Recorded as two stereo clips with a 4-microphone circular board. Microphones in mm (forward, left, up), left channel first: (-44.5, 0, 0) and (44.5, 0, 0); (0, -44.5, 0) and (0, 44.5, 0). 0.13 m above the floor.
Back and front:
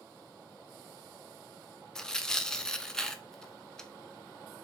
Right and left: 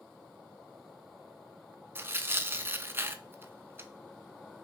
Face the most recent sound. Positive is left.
turn(degrees=105)